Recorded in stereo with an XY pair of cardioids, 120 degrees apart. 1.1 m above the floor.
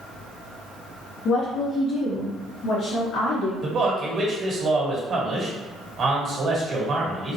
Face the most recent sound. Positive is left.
turn(degrees=-40)